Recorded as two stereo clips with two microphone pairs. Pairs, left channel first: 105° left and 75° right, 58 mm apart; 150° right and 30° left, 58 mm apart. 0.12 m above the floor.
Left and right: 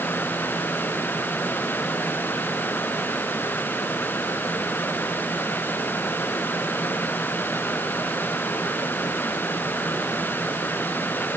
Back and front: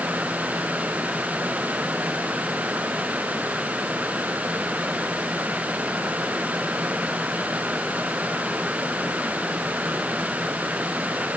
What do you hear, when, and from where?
Only background noise.